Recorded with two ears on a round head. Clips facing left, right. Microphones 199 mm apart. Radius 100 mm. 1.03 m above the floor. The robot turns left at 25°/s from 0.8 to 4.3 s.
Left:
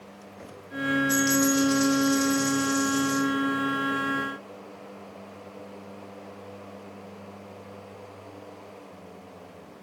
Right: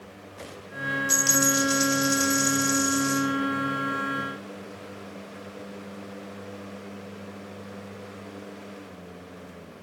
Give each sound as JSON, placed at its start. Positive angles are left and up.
{"t": 1.1, "sound": "a dropped coin", "azimuth_deg": -85, "distance_m": 2.0}